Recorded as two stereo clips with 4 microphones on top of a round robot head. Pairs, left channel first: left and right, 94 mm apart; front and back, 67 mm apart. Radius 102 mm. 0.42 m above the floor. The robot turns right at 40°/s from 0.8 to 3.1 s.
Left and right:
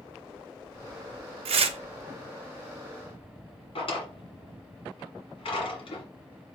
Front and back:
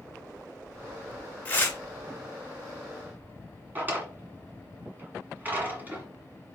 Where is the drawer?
115° left, 1.8 m.